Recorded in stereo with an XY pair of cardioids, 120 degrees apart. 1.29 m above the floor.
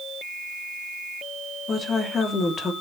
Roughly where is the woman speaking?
Ahead left.